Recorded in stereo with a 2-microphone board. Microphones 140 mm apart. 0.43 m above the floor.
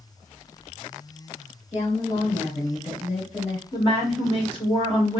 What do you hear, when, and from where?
1.7 s a woman speaking: 45° left (ahead or behind), 1.4 m
3.7 s a woman speaking: 35° left (ahead or behind), 1.5 m